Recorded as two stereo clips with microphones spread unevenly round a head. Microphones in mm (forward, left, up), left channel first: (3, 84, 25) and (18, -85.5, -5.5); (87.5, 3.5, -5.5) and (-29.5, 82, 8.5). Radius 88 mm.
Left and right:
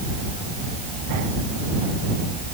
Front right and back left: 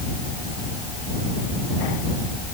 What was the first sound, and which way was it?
Only background noise.